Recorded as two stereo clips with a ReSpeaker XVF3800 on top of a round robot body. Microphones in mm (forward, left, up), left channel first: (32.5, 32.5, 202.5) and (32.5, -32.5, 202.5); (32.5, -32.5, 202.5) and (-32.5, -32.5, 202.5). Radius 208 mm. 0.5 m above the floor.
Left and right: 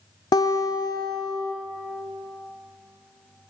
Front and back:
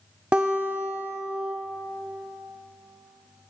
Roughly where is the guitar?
Left.